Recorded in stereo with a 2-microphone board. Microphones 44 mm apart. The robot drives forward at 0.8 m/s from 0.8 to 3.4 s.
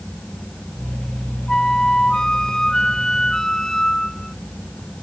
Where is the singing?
I don't hear singing.